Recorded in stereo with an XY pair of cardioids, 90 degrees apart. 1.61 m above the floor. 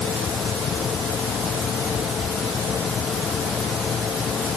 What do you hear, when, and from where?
0.0 s a fan: 55° left